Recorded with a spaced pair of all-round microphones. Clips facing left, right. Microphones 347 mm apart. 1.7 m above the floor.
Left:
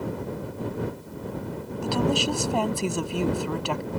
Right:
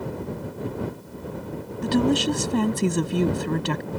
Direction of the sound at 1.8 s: 25° right (ahead or behind).